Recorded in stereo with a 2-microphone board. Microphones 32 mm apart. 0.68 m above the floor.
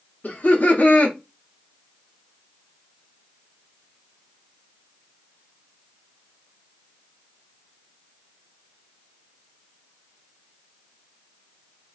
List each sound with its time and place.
0.2 s laughter: 60° left (ahead or behind), 1.1 m